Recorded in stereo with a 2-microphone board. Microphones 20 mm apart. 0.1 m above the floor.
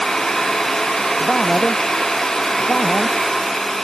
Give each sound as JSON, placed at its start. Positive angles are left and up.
{"t": 1.2, "sound": "a man speaking", "side_deg": 50}